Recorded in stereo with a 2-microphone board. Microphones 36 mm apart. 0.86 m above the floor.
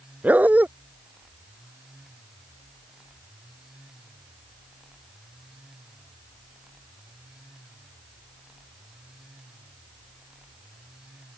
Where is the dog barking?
45° right (ahead or behind).